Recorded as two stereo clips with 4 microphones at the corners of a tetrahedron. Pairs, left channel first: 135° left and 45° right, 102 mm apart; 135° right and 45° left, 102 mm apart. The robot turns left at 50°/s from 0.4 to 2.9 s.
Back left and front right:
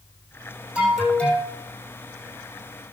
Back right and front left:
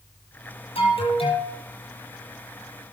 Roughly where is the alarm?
Behind right.